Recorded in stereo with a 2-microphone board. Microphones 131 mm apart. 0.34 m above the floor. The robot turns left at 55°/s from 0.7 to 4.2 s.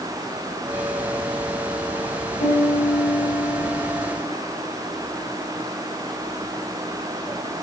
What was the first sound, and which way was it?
A piano, 80° left.